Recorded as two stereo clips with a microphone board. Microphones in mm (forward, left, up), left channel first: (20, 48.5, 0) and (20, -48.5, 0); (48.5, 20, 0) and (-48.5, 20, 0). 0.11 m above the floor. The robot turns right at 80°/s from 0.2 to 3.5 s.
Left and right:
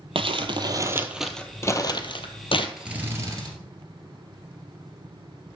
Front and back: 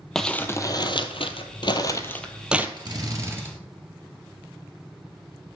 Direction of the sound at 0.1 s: 85° right.